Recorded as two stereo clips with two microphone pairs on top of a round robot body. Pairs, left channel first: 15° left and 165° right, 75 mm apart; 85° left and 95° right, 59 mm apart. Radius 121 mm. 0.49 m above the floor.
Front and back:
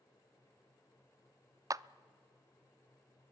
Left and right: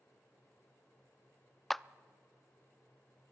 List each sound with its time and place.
1.7 s a clap: 170° left, 0.5 m